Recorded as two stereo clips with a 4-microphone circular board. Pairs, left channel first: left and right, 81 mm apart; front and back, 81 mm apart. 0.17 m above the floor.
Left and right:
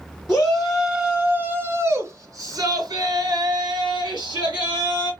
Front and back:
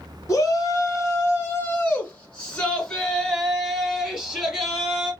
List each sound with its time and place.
0.3 s a shout: 15° left, 1.6 m; by 5.1 s 100° right, 3.5 m